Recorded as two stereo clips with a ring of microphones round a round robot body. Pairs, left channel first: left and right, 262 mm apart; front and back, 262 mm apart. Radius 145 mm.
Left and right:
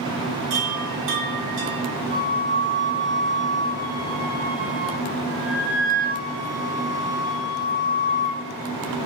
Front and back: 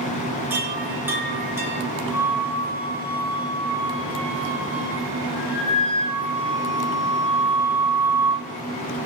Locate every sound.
0.5 s a chime: 95° right, 3.5 m
2.1 s a flute: 70° right, 6.5 m